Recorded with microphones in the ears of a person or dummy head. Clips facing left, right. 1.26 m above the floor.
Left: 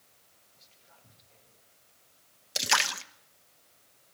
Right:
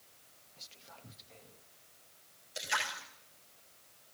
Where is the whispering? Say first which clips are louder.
Right 7 dB; 75° right (ahead or behind), 1.3 m.